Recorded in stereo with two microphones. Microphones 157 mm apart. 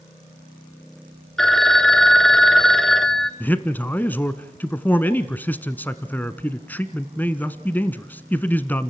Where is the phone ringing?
5° left (ahead or behind), 1.2 m.